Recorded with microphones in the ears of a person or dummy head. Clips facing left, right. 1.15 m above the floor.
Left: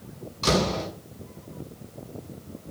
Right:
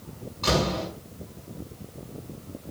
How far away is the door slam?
About 7 m.